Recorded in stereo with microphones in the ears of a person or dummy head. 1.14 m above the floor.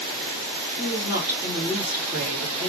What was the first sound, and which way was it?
A woman speaking, 5° right (ahead or behind).